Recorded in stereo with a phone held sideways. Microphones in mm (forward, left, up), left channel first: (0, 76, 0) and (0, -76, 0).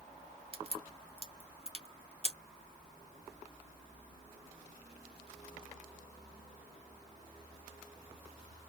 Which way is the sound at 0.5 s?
40° right (ahead or behind).